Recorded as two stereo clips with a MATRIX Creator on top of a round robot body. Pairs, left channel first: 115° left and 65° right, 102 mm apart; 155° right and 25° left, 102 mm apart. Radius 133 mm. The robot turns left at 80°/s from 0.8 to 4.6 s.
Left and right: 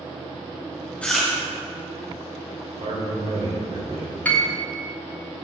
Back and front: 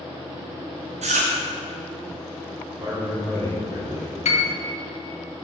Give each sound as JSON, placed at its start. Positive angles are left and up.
{"t": 1.0, "sound": "chewing", "azimuth_deg": 35, "distance_m": 0.7}
{"t": 2.8, "sound": "a man speaking", "azimuth_deg": -45, "distance_m": 3.0}
{"t": 4.2, "sound": "a piano", "azimuth_deg": -170, "distance_m": 0.9}